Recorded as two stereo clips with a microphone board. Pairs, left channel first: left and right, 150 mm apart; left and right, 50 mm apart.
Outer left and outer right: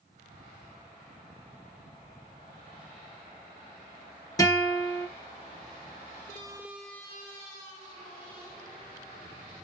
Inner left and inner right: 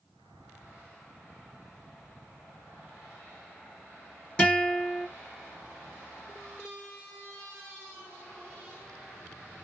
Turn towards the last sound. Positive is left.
turn(degrees=25)  # may be behind; listen again after turning